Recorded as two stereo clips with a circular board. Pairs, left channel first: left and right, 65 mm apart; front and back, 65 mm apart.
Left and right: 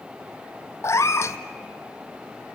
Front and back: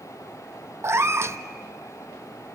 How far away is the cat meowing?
About 0.8 m.